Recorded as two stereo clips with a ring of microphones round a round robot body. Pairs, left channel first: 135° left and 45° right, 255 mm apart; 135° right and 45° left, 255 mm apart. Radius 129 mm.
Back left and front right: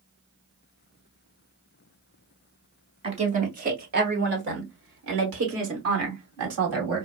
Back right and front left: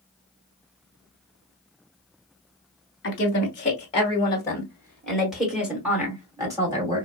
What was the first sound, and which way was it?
A woman speaking, 105° right.